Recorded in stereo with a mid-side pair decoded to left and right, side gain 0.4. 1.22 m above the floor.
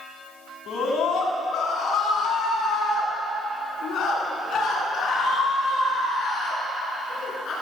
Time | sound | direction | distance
0.7 | a scream | 65° left | 9 m